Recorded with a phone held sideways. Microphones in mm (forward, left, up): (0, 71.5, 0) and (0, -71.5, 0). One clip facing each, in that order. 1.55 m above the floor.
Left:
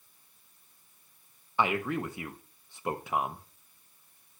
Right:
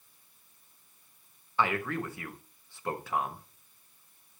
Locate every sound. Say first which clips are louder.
1.6 s a man speaking: left 1 dB; 20° left (ahead or behind), 0.8 m